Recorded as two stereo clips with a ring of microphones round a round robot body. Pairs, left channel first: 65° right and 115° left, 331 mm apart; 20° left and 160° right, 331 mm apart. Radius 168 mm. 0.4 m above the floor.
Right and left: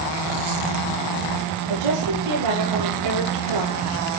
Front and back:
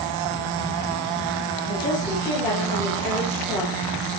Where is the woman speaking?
100° left, 9 m; by 3.9 s 110° left, 10.5 m.